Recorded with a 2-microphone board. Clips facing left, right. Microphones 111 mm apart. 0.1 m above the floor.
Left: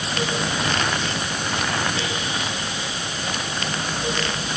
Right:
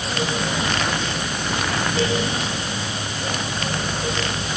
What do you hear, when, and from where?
Only background noise.